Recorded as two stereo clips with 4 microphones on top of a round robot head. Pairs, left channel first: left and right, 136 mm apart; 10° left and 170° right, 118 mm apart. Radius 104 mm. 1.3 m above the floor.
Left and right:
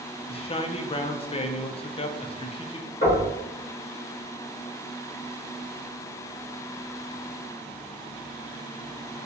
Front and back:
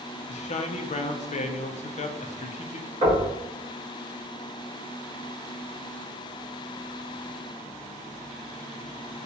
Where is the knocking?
140° left, 2.0 m.